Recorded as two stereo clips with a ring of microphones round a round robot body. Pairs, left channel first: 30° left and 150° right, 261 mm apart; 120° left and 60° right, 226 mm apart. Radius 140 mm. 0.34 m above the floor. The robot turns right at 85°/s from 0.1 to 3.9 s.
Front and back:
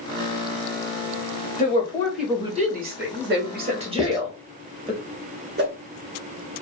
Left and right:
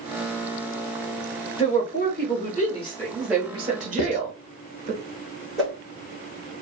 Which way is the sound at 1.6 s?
75° left.